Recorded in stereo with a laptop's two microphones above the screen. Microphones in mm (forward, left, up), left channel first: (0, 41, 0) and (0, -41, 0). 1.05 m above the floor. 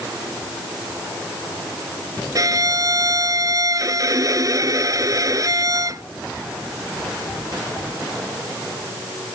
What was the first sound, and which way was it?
A violin, 45° right (ahead or behind).